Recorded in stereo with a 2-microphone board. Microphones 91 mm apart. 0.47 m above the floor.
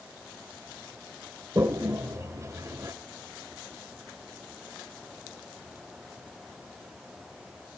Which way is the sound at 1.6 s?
35° right (ahead or behind).